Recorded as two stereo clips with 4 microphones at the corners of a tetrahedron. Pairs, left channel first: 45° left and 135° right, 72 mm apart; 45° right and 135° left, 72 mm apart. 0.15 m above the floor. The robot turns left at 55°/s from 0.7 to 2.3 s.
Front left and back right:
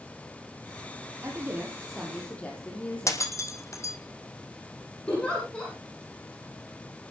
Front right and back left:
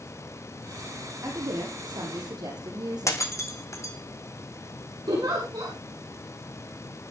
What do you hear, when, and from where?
1.2 s a woman speaking: 175° left, 7 m; by 3.3 s 115° left, 7 m
3.1 s breaking glass: straight ahead, 1.9 m
5.1 s a giggle: 120° left, 9.5 m